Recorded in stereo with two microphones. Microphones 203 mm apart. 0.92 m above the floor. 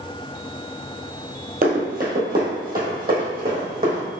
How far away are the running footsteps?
About 1.3 m.